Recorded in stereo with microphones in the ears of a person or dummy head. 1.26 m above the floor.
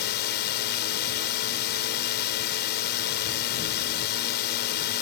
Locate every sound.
0.0 s a drone: 50° left (ahead or behind)